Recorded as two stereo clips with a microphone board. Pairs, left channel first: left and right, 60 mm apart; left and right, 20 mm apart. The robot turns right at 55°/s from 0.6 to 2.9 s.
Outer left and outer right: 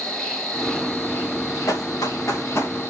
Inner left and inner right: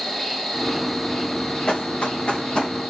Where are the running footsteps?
70° left (ahead or behind), 1.9 m; by 2.8 s 35° left (ahead or behind), 3 m.